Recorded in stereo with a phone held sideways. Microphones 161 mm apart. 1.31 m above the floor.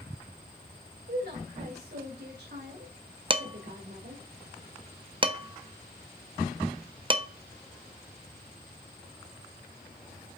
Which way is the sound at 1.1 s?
80° right.